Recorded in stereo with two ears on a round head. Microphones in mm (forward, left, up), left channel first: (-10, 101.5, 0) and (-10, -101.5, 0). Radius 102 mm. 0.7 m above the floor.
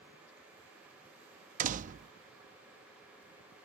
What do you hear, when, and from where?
1.6 s a door slam: 35° right (ahead or behind)